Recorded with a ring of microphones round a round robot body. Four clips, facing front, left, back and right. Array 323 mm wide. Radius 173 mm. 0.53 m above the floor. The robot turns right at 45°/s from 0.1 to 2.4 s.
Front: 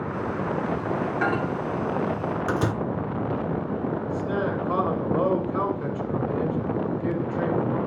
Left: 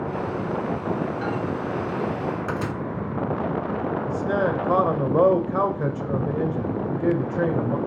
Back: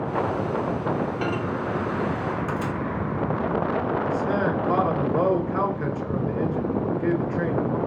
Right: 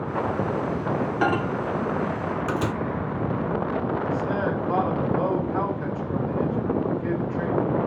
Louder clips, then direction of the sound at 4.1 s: Left 2 dB, back 3 dB; 100° left.